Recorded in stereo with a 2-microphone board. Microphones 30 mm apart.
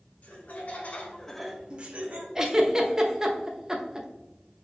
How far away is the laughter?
About 1.5 m.